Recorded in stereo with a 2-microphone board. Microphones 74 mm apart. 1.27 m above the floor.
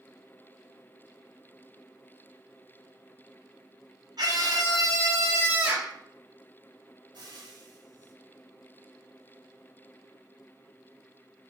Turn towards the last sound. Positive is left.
turn(degrees=-80)